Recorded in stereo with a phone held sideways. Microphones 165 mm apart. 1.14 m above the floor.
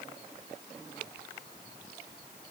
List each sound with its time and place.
Only background noise.